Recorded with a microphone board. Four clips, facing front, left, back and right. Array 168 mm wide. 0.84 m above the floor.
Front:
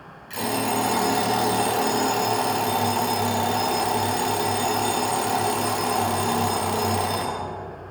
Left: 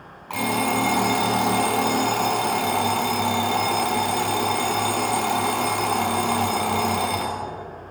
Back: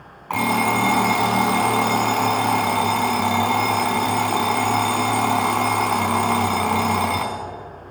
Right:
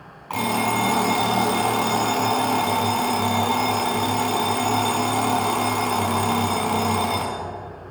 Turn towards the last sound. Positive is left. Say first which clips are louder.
# right 1 dB, back 5 dB
turn(degrees=180)